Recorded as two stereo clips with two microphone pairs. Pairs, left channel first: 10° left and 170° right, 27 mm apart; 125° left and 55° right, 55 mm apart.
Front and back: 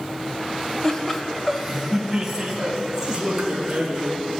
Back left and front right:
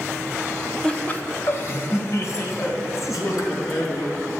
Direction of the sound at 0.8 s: 65° left.